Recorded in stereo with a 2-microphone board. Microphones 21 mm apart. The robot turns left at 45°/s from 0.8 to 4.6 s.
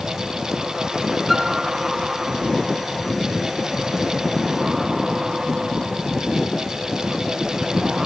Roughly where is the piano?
Centre.